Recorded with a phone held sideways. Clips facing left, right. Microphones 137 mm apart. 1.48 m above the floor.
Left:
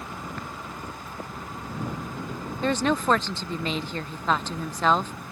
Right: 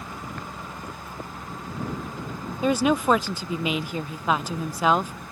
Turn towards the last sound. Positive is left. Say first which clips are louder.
# right 3 dB
turn(degrees=-10)  # may be behind; listen again after turning